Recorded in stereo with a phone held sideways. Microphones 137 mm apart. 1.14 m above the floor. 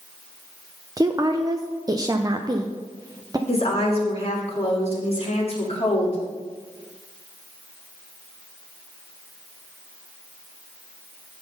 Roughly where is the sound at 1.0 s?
Right.